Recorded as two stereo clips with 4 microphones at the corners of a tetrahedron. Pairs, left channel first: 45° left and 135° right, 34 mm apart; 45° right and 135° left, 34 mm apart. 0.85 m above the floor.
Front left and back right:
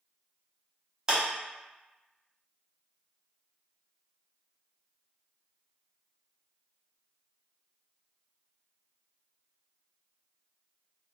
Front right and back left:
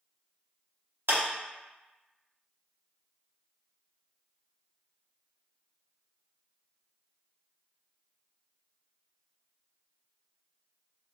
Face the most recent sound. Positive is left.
turn(degrees=150)